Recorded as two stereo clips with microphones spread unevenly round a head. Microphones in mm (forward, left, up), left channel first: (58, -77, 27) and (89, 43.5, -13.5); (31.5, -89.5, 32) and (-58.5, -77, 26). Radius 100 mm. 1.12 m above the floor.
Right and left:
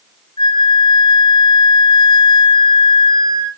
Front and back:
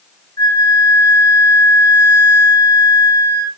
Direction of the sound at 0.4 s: 60° right.